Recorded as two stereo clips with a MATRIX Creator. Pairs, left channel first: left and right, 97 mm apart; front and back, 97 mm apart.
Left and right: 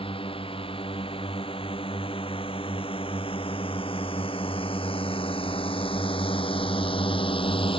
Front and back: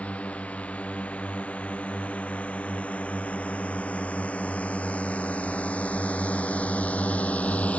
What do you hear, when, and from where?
0.0 s a drone: 75° left